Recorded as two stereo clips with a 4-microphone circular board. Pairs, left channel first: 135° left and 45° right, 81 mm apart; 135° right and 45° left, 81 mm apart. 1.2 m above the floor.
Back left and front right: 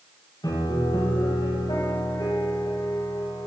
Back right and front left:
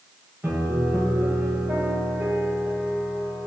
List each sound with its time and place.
0.4 s a piano: 115° left, 6.5 m